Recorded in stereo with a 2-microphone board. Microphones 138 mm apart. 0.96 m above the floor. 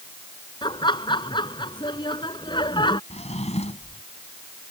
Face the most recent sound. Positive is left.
turn(degrees=50)  # may be behind; listen again after turning